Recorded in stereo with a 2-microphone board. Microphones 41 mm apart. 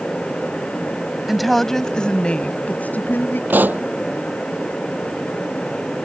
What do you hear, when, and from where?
1.3 s a woman speaking: 5° right (ahead or behind); by 3.4 s 55° left (ahead or behind)
3.5 s a pop: 50° right (ahead or behind)